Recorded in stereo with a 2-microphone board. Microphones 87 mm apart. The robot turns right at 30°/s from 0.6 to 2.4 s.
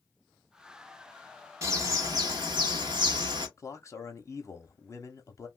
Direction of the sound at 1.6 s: 30° right (ahead or behind).